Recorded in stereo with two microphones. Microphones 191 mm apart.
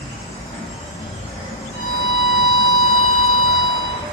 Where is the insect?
30° left (ahead or behind), 1.6 m.